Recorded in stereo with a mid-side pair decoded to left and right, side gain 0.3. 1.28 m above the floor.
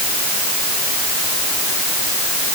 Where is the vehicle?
I don't hear a vehicle.